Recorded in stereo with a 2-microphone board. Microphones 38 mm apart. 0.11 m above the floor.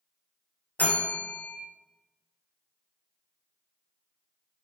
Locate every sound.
0.8 s a bell: 45° left (ahead or behind), 1.4 m